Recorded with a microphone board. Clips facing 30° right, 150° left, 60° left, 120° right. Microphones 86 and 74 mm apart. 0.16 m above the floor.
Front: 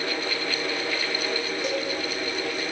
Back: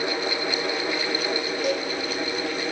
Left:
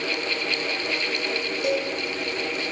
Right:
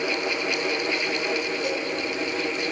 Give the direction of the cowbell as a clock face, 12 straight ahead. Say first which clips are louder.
Back 3 dB, left 3 dB; 10 o'clock.